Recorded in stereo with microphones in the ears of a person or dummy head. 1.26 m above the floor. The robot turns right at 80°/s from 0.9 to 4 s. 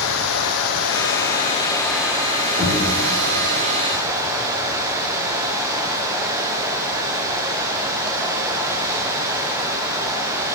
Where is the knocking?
35° right (ahead or behind), 2 m; by 2.8 s 55° right (ahead or behind), 2 m.